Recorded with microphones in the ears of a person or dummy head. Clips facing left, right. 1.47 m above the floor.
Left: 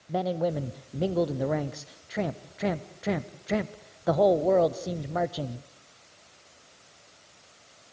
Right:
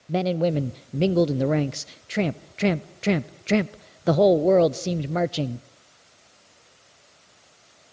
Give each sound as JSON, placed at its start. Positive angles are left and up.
{"t": 0.1, "sound": "a man speaking", "side_deg": -40, "distance_m": 0.5}